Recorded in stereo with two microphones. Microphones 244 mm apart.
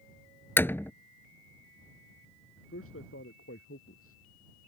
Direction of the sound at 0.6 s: 10° left (ahead or behind).